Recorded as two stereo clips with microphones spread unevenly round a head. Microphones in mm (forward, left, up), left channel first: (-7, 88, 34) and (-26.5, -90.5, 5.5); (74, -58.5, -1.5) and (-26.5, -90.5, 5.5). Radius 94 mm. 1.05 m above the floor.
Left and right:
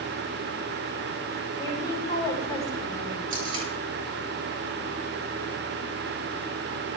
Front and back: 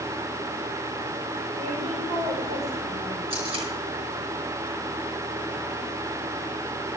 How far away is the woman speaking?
About 7 m.